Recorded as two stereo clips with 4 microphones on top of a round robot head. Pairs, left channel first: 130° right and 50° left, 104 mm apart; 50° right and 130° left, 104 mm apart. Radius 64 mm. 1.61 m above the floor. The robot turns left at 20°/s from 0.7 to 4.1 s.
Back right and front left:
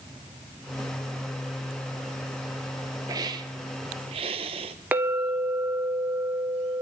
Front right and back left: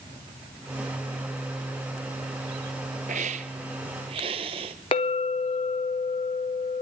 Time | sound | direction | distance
3.1 | a hiss | 110° left | 1.0 m
4.9 | a clink | 20° right | 1.0 m